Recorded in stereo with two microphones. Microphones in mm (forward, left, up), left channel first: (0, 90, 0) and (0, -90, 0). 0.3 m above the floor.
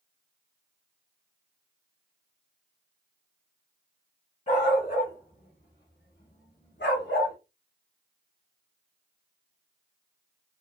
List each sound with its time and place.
4.5 s a dog barking: 45° left (ahead or behind), 1.6 m; by 7.3 s 60° left (ahead or behind), 1.2 m